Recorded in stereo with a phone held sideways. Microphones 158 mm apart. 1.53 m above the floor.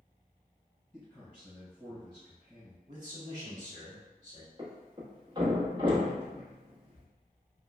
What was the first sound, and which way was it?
A man speaking, 10° left (ahead or behind).